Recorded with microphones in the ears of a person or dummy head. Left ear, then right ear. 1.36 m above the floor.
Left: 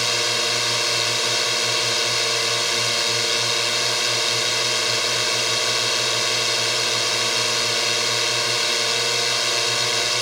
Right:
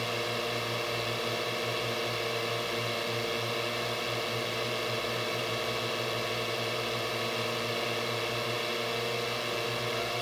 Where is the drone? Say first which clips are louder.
Left 11 dB; 60° left (ahead or behind).